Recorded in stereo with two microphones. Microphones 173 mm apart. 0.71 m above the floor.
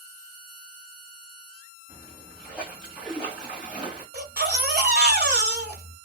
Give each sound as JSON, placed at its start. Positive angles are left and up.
{"t": 1.9, "sound": "a splash", "side_deg": -5, "distance_m": 1.5}
{"t": 4.1, "sound": "a baby crying", "side_deg": -75, "distance_m": 1.1}